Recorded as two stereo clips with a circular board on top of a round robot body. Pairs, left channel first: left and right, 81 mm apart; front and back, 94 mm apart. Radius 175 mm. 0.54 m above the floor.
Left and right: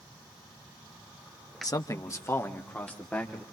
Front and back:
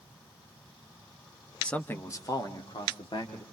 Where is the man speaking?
75° left, 1.6 m; by 3.4 s 15° left, 3 m.